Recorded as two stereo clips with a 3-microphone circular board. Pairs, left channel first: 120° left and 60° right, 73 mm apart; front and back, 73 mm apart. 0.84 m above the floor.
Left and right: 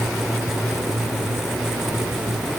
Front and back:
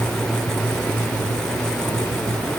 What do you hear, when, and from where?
Only background noise.